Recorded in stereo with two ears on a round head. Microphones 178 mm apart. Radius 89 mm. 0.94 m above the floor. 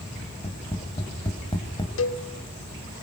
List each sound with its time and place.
0.2 s tapping: 25° left (ahead or behind), 3 m
2.0 s a cowbell: 70° left (ahead or behind), 1.5 m